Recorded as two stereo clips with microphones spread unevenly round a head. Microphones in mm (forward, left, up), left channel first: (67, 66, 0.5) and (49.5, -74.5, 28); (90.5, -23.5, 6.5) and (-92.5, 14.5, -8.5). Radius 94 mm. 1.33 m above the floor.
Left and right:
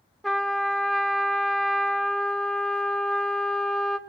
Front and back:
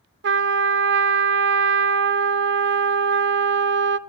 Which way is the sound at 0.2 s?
Straight behind.